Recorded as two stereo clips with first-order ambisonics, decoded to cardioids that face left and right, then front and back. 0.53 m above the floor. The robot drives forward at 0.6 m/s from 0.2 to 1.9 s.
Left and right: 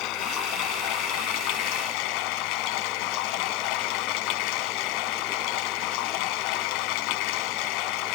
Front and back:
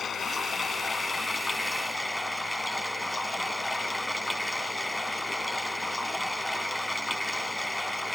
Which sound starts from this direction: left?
Running water, at 0.0 s.